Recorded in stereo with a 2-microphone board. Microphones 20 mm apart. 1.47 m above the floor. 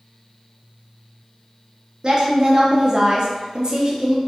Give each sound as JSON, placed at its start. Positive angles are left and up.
{"t": 2.0, "sound": "a woman speaking", "side_deg": -45, "distance_m": 0.6}